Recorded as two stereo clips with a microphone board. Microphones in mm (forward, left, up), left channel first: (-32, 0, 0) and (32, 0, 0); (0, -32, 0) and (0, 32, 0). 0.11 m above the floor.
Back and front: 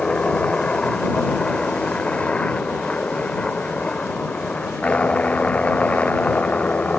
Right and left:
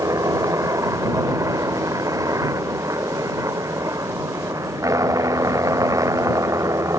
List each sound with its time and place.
0.0 s a helicopter: 105° left; by 7.0 s 115° left